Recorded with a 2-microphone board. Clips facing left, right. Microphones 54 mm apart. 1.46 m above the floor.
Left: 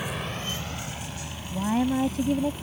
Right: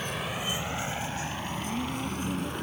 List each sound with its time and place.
0.0 s a vehicle: 10° left (ahead or behind); by 2.6 s 55° right (ahead or behind)
1.5 s a woman speaking: 80° left